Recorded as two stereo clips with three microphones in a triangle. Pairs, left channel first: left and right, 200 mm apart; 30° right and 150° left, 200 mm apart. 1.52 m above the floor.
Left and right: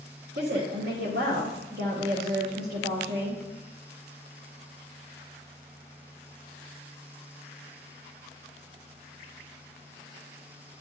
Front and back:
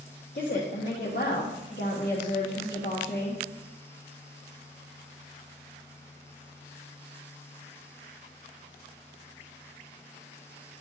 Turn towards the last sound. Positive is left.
turn(degrees=-75)